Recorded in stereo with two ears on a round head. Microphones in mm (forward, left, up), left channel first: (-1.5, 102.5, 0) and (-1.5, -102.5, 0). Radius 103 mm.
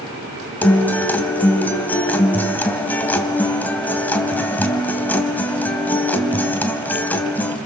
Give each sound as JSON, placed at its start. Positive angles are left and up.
{"t": 0.6, "sound": "a guitar", "side_deg": 10, "distance_m": 2.0}